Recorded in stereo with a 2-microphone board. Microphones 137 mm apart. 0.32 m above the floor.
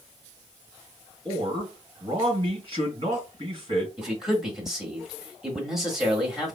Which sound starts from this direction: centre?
A man speaking, at 4.0 s.